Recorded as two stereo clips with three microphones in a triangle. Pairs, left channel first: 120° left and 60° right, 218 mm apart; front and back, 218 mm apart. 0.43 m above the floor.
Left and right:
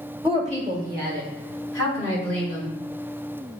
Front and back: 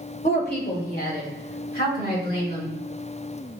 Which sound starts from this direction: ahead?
A woman speaking, at 0.2 s.